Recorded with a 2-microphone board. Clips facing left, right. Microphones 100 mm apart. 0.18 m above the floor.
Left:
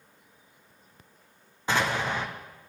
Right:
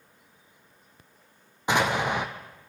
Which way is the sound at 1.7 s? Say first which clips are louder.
Right 3 dB; 20° right (ahead or behind).